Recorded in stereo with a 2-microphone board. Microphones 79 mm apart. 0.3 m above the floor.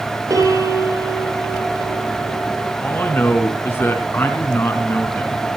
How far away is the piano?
About 6 m.